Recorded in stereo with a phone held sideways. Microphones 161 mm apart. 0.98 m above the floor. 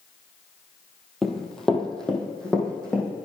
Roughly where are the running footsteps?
Centre.